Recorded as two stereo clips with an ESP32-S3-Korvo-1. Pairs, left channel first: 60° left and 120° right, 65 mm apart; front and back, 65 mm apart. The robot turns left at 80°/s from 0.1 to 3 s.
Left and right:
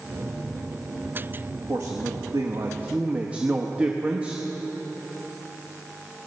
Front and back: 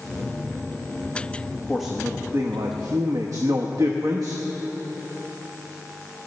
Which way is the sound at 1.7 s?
80° right.